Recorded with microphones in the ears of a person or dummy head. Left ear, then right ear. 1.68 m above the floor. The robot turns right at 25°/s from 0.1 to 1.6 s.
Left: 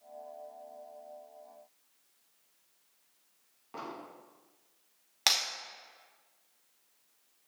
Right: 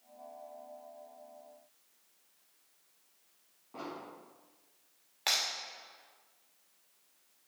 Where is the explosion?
60° left (ahead or behind), 1.5 m.